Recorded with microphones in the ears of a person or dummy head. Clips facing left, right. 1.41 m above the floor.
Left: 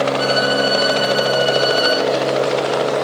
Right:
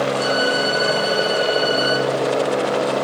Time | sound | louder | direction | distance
0.2 | a violin | left 2 dB | 30° left (ahead or behind) | 2.5 m